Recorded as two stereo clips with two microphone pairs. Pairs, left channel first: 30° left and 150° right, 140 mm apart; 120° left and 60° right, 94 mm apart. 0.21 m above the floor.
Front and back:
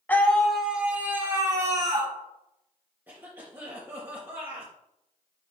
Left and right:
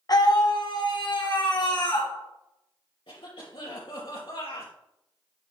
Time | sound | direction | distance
0.1 | a scream | 105° left | 1.5 m
3.1 | a cough | 135° left | 3 m